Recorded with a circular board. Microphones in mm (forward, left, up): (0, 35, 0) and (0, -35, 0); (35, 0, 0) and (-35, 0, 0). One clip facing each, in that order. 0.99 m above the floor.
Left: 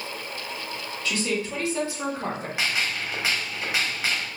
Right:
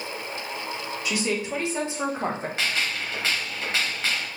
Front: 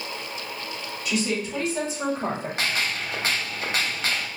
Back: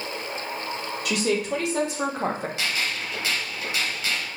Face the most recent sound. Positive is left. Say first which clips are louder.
# left 2 dB, front 1 dB
turn(degrees=10)